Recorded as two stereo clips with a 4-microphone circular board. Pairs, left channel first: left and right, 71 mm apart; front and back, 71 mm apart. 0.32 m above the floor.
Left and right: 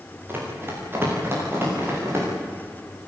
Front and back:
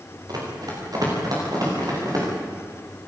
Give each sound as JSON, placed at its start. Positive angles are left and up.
{"t": 0.3, "sound": "running footsteps", "azimuth_deg": -150, "distance_m": 9.5}